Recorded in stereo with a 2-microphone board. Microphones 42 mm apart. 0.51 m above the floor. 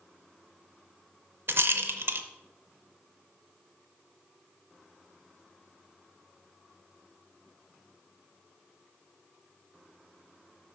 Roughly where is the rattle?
Right.